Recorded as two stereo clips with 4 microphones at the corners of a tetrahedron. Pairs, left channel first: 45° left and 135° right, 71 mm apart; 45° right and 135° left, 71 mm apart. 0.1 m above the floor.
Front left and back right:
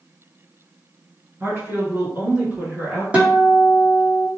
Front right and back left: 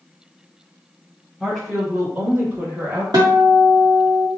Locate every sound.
1.4 s a woman speaking: 130° right, 1.8 m; by 3.0 s 165° left, 1.9 m
3.1 s a guitar: 155° left, 1.1 m